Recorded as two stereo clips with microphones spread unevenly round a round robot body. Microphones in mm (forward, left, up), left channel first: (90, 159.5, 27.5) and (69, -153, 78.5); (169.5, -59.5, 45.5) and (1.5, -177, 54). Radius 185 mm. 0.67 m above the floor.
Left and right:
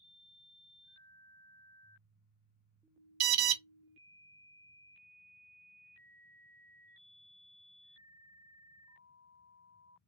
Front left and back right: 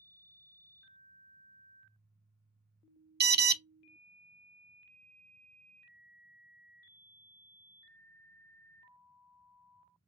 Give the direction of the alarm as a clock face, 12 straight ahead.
3 o'clock.